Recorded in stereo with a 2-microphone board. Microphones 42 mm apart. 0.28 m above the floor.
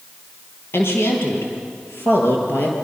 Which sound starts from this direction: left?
A woman speaking, at 0.7 s.